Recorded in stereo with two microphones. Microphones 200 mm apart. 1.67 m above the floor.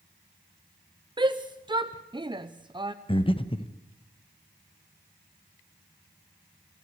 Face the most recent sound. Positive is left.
turn(degrees=25)  # may be behind; listen again after turning